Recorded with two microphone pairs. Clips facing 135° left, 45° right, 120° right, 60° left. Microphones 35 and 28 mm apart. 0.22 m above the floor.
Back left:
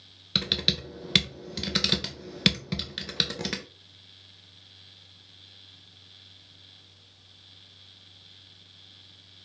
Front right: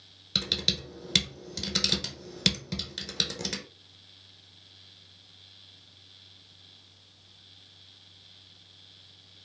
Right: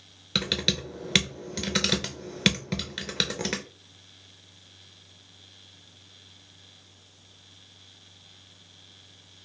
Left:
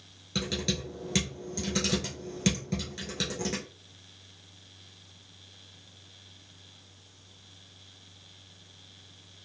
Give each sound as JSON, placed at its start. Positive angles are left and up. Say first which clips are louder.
{"t": 0.3, "sound": "typing on a keyboard", "louder": "back left 2 dB, right 5 dB", "azimuth_deg": -160, "distance_m": 0.6}